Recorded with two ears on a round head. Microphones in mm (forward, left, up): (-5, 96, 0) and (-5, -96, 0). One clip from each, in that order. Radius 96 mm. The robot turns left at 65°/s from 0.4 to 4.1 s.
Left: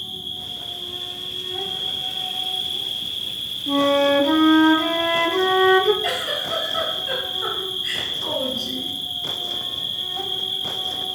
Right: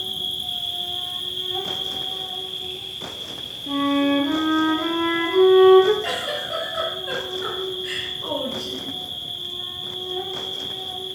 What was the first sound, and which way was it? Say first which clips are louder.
An insect: right 4 dB; 75° right.